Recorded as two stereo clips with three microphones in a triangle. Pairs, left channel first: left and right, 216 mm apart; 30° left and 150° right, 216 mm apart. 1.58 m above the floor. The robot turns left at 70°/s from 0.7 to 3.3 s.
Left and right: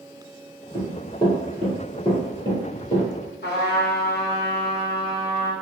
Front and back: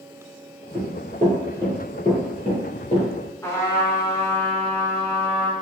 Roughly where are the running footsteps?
Left.